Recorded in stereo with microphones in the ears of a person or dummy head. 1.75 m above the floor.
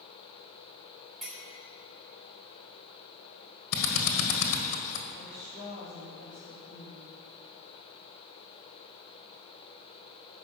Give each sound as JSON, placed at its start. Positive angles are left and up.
{"t": 1.2, "sound": "a clink", "side_deg": 0, "distance_m": 3.5}
{"t": 3.7, "sound": "a drill", "side_deg": 80, "distance_m": 1.8}
{"t": 5.1, "sound": "a woman speaking", "side_deg": 15, "distance_m": 3.0}